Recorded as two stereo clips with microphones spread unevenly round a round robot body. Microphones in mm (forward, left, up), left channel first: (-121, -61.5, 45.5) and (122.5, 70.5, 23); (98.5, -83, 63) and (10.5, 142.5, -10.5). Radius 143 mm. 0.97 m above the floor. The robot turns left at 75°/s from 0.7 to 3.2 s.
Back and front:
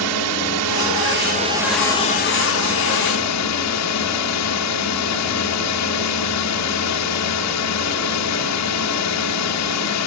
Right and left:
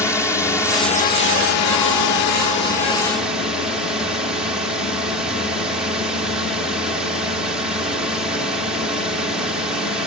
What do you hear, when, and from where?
0.0 s a drone: 20° left; by 10.1 s 170° right